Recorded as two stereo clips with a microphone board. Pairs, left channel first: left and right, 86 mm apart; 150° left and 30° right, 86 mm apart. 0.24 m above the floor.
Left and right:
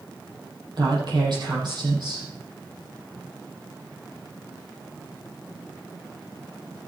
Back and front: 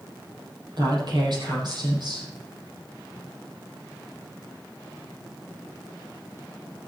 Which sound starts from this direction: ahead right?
A woman speaking, at 0.8 s.